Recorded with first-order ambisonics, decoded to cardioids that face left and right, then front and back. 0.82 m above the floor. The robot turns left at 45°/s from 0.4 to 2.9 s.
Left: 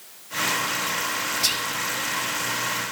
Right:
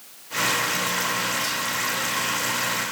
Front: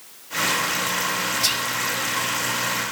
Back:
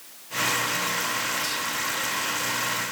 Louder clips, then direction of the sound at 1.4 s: Left 2 dB, front 6 dB; 45° left.